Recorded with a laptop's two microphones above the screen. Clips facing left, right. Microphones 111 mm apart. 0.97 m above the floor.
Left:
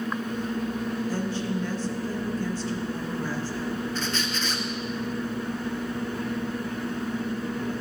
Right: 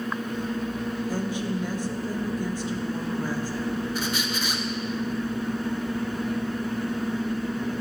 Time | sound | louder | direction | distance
1.1 | a woman speaking | even | 15° right (ahead or behind) | 0.8 m
4.0 | a squeak | right 1 dB | 10° right (ahead or behind) | 0.6 m